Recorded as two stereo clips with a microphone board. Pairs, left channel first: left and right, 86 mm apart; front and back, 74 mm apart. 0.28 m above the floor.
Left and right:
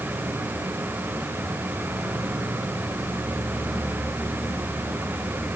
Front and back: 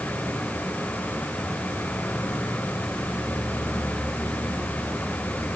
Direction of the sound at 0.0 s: 45° right.